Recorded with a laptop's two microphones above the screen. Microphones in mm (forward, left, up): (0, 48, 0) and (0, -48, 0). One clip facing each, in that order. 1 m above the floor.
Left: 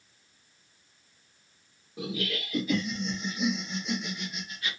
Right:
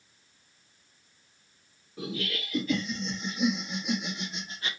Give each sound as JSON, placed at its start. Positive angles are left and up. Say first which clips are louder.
{"t": 2.0, "sound": "laughter", "louder": "left 1 dB", "side_deg": 20, "distance_m": 1.6}